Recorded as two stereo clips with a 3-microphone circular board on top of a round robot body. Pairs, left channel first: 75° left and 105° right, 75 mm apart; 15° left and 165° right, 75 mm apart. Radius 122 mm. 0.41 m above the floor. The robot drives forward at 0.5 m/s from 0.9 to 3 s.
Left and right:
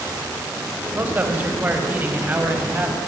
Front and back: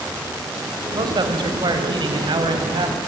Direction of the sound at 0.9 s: 170° right.